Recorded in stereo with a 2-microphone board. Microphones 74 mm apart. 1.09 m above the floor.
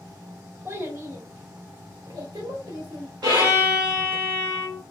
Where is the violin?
75° right (ahead or behind), 2 m.